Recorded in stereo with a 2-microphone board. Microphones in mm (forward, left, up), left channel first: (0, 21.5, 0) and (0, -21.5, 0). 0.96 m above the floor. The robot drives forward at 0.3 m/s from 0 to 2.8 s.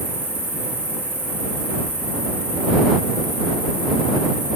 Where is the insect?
70° right (ahead or behind), 6.5 m; by 4.6 s 65° right (ahead or behind), 7 m.